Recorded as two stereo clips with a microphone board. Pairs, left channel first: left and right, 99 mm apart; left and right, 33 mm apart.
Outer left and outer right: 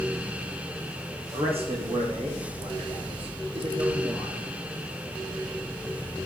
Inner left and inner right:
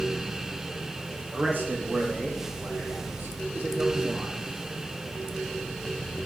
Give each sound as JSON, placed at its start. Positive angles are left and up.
{"t": 1.3, "sound": "a man speaking", "side_deg": -70, "distance_m": 5.5}